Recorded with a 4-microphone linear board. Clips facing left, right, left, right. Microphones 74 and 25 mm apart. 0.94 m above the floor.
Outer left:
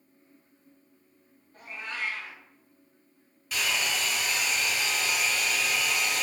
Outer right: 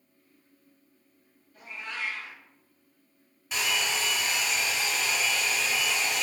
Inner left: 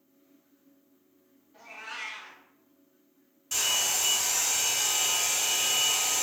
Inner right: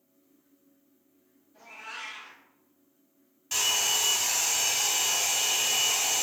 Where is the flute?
No flute in this recording.